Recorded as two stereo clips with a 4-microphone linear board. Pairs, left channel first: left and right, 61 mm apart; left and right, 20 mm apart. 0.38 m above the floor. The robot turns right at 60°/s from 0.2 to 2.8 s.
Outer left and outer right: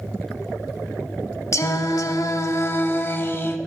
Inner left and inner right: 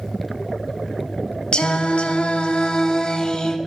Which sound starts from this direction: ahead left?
Singing, at 1.5 s.